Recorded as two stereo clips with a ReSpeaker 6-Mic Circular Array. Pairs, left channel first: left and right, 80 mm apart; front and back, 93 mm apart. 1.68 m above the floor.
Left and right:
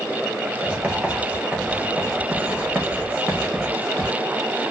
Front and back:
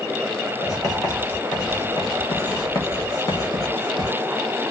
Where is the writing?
30° right, 1.3 m.